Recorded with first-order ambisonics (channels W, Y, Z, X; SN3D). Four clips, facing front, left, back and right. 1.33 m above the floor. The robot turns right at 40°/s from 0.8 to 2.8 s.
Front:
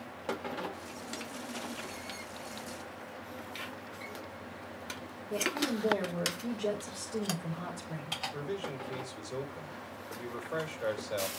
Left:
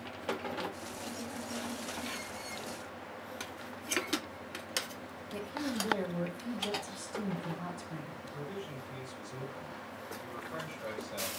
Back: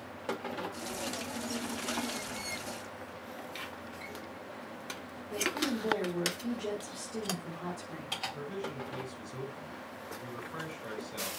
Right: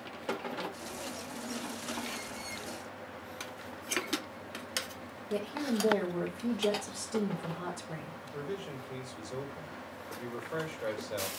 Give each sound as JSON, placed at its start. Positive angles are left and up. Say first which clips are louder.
{"t": 5.3, "sound": "a woman speaking", "louder": "right 4 dB, even", "azimuth_deg": -65, "distance_m": 4.5}
{"t": 8.2, "sound": "a man speaking", "louder": "right 6 dB, front 1 dB", "azimuth_deg": -30, "distance_m": 5.0}